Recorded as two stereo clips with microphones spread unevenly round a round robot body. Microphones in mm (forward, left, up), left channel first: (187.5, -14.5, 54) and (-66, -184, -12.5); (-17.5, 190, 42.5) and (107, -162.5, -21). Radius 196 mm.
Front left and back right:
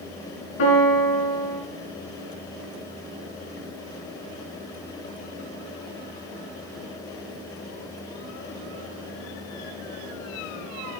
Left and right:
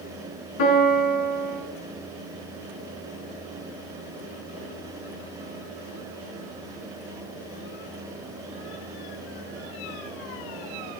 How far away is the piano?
About 4 m.